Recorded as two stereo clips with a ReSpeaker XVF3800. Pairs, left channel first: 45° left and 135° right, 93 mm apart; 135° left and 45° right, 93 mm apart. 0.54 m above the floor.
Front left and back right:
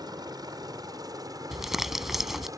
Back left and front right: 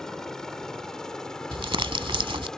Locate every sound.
0.0 s a helicopter: 145° right
1.5 s crumpling: 50° right